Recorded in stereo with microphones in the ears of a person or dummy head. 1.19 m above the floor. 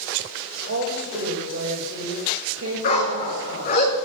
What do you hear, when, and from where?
0.7 s a woman speaking: 80° right, 5.5 m
2.8 s a dog barking: 45° left (ahead or behind), 6 m